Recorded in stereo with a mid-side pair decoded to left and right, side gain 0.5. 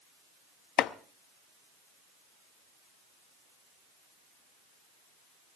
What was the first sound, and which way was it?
Chopping, 70° left.